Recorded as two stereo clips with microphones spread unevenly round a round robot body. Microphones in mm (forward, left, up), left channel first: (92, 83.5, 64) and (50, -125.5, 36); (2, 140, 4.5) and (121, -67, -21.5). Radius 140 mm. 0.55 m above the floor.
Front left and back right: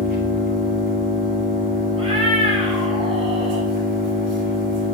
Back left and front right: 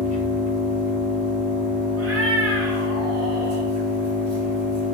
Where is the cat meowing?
35° right, 1.6 m.